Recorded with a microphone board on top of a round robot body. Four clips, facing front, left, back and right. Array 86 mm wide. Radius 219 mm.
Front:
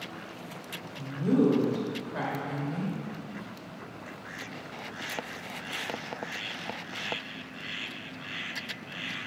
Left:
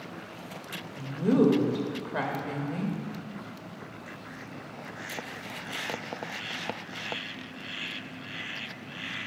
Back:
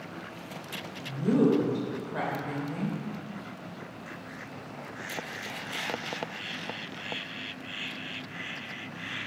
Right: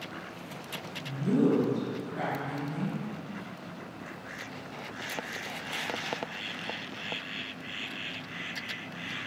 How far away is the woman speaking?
About 1.2 m.